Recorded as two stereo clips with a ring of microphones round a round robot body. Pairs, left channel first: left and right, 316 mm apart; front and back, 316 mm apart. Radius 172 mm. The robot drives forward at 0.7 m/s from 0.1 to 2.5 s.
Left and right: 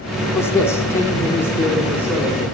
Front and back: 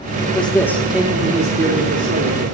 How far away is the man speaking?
About 1.3 m.